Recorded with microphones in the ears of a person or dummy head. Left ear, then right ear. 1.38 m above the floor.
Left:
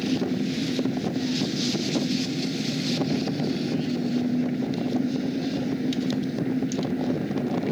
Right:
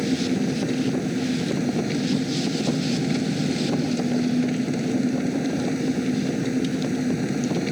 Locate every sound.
0.0 s an engine running: 85° right